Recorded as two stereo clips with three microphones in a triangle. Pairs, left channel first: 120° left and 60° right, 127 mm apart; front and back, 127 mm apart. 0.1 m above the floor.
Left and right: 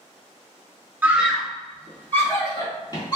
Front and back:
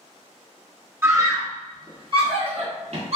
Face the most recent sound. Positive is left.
turn(degrees=170)